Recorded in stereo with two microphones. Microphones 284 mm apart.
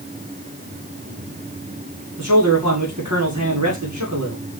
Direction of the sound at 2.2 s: 80° right.